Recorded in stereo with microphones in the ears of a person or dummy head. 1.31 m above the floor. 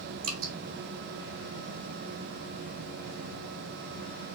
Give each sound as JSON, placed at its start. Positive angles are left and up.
{"t": 0.2, "sound": "dripping", "side_deg": -45, "distance_m": 2.5}